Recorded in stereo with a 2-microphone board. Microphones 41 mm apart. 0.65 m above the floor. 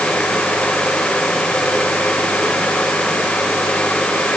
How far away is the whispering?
No whispering in this recording.